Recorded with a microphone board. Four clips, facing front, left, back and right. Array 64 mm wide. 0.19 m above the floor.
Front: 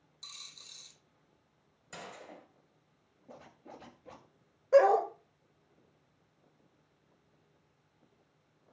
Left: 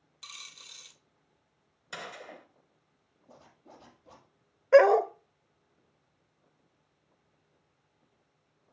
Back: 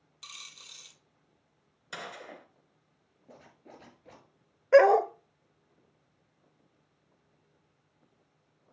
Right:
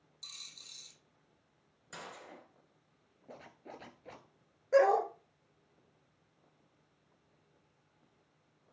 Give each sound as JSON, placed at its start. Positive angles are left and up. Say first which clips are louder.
{"t": 0.2, "sound": "a dropped coin", "louder": "left 7 dB, back 5 dB", "azimuth_deg": 135, "distance_m": 1.0}
{"t": 1.9, "sound": "a gunshot", "louder": "left 6 dB, back 5 dB", "azimuth_deg": 145, "distance_m": 2.0}
{"t": 3.3, "sound": "a zipper", "louder": "right 4 dB, front 1 dB", "azimuth_deg": -95, "distance_m": 1.9}
{"t": 4.7, "sound": "a dog barking", "louder": "left 7 dB, back 4 dB", "azimuth_deg": 135, "distance_m": 1.2}